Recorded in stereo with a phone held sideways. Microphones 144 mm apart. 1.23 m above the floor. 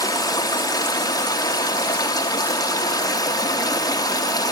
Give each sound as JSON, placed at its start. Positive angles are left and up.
{"t": 0.0, "sound": "running water", "side_deg": 25, "distance_m": 0.9}